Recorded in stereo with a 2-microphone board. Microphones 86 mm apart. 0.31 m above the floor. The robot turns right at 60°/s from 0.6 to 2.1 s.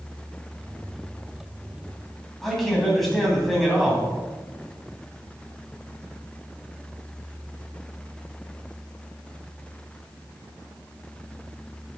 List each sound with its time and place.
2.4 s a man speaking: centre (ahead or behind), 2.5 m